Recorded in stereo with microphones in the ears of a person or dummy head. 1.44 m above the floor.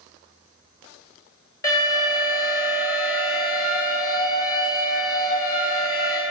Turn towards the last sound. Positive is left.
turn(degrees=20)  # may be behind; listen again after turning